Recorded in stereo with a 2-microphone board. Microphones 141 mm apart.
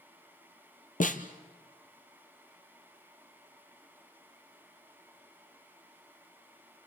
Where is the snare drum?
70° left (ahead or behind), 1.4 m.